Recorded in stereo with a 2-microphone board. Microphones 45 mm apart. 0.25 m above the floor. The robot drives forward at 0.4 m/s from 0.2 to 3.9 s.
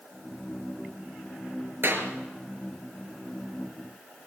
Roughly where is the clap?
Right.